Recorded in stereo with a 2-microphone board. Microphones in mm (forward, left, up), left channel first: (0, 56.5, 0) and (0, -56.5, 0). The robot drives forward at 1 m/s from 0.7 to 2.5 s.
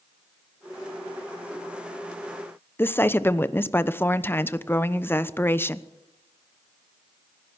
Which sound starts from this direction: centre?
A woman speaking, at 2.8 s.